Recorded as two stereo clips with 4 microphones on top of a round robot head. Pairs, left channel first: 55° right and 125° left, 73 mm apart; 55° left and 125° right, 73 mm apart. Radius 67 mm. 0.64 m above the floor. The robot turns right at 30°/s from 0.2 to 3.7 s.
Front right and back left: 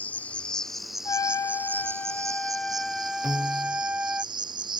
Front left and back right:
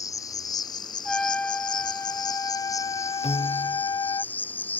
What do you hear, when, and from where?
0.0 s an insect: 15° left; by 4.8 s 120° left
1.1 s a trumpet: 25° right; by 4.2 s 55° left
3.2 s a piano: 50° left; by 3.8 s 65° left